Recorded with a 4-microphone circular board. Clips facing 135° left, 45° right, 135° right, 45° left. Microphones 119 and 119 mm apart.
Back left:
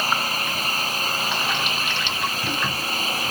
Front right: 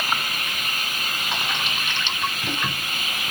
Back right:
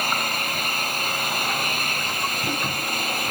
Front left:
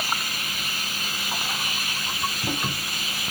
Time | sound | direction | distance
0.0 | an engine running | 170° right | ?